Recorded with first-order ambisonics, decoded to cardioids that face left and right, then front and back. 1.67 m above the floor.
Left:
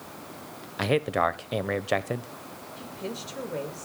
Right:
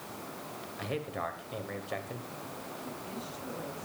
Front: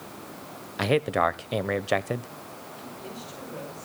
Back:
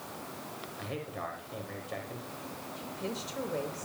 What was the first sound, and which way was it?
A man speaking, 40° left.